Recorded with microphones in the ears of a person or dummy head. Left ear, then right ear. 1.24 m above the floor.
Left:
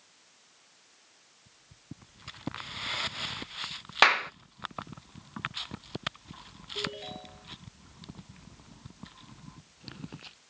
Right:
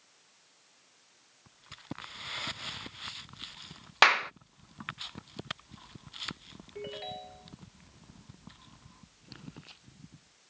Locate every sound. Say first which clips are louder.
4.0 s a clap: even; 15° right (ahead or behind)
6.8 s a ringtone: left 4 dB; 40° right (ahead or behind)